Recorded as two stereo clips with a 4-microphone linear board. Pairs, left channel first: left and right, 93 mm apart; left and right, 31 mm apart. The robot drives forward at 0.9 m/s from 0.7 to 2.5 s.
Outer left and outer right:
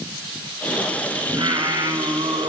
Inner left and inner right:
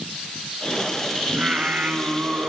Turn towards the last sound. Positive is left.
turn(degrees=-65)  # may be behind; listen again after turning